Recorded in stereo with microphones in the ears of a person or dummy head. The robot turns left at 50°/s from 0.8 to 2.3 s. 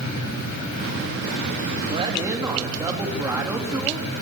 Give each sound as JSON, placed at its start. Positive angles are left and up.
{"t": 1.9, "sound": "a woman speaking", "side_deg": -35, "distance_m": 3.0}